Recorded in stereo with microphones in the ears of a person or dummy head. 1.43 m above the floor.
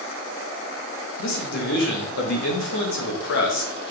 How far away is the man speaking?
About 1.7 m.